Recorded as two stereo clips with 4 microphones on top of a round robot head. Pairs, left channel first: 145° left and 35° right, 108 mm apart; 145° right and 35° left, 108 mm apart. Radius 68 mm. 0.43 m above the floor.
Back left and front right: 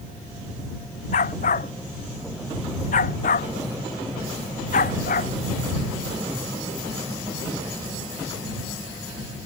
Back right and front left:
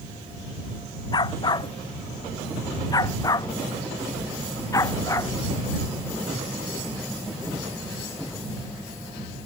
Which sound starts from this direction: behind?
A dog barking, at 1.1 s.